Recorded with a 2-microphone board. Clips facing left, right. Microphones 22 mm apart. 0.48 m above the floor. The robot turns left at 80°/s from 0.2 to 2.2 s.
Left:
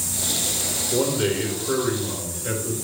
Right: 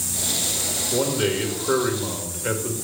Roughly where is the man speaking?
Ahead.